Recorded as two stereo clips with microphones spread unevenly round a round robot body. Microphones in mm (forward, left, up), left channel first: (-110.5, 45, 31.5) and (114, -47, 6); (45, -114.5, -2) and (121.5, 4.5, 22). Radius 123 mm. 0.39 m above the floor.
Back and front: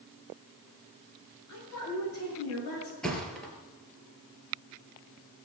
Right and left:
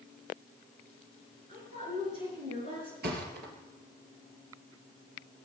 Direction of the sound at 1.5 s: 130° left.